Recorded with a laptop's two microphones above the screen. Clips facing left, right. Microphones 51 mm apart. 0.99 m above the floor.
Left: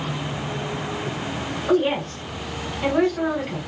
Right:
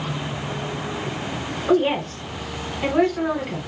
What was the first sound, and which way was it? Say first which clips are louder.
A woman speaking: right 1 dB; 5° right (ahead or behind).